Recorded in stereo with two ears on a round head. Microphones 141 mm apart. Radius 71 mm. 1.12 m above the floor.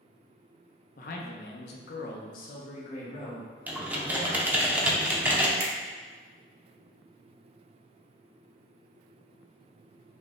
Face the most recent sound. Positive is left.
turn(degrees=-70)  # may be behind; listen again after turning